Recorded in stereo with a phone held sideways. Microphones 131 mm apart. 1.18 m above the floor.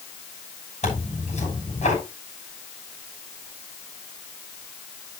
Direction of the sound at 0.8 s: 60° left (ahead or behind).